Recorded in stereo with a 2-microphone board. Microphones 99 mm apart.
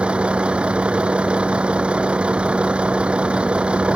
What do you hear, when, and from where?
0.0 s a vehicle: 10° right (ahead or behind)